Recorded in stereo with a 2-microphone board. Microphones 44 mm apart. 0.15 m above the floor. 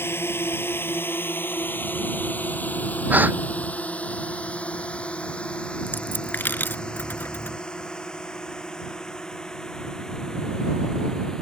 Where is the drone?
65° left (ahead or behind); by 11.4 s 15° left (ahead or behind).